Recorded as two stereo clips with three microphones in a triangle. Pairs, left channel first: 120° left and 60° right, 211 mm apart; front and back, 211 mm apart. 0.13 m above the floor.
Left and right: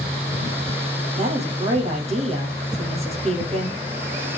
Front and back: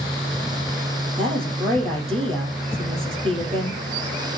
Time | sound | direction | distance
1.2 | a woman speaking | 120° right | 4 m